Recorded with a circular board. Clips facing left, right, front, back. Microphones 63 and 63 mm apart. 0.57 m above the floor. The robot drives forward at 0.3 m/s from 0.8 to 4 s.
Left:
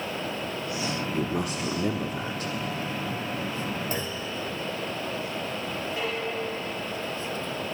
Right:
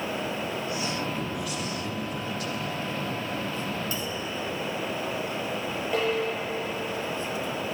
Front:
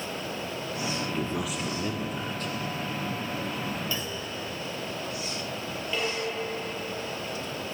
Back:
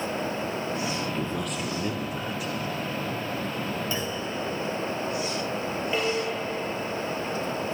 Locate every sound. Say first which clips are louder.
1.1 s a man speaking: left 3 dB, back 1 dB; 80° left, 1.3 m; by 2.5 s 105° left, 1.3 m
3.9 s a clunk: left 1 dB, back 3 dB; 115° left, 3 m
5.9 s dishes clattering: right 6 dB, back 2 dB; 110° right, 9 m